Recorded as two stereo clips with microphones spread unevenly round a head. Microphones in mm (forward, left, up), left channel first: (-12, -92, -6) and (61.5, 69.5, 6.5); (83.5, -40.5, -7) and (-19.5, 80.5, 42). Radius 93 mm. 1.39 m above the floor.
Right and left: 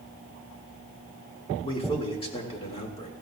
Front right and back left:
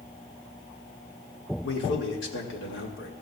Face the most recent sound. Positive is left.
turn(degrees=-55)